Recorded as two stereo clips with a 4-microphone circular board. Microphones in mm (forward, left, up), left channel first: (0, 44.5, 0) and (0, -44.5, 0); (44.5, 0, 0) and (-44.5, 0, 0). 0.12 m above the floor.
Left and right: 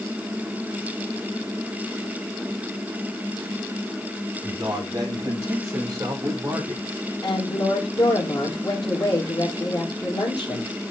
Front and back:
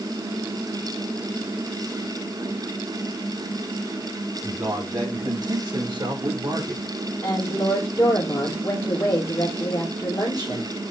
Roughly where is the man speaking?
Behind right.